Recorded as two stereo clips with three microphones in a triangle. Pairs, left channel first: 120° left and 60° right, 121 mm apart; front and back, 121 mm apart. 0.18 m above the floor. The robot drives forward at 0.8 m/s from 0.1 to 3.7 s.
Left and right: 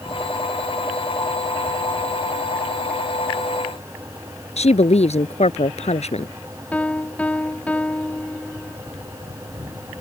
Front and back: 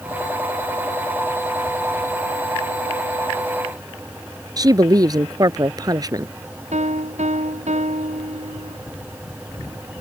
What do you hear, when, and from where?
4.6 s a woman speaking: 125° left
6.7 s a piano: 160° right